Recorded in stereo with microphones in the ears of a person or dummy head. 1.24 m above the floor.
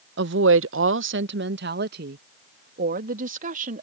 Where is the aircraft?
No aircraft in this recording.